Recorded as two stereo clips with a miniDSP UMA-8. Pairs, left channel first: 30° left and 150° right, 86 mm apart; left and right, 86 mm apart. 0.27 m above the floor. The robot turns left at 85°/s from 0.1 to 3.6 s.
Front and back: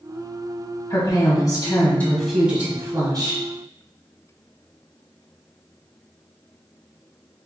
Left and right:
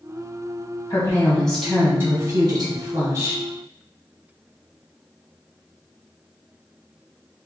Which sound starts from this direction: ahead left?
A woman speaking, at 0.9 s.